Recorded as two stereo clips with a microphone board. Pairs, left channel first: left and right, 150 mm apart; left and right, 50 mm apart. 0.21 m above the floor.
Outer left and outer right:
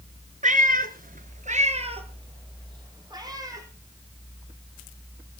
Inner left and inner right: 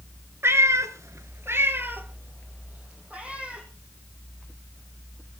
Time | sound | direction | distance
0.4 | a cat meowing | 55° right (ahead or behind) | 1.1 m